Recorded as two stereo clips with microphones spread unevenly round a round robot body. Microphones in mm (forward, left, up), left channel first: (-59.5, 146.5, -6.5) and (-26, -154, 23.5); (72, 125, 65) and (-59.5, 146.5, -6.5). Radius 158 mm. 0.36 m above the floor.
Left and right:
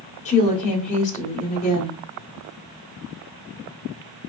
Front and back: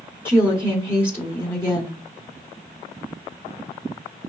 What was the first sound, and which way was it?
A woman speaking, 110° left.